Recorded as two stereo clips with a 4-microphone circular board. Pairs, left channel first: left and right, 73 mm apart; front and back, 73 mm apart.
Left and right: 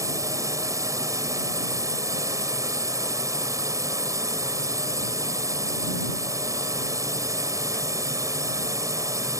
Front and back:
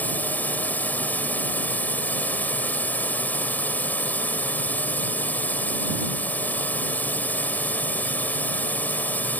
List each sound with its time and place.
0.0 s a drone: 65° right